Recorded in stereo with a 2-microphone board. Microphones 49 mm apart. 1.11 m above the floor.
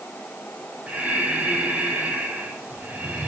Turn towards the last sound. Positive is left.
turn(degrees=-30)  # may be behind; listen again after turning